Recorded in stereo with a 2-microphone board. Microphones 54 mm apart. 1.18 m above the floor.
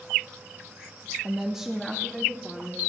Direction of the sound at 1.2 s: 25° right (ahead or behind).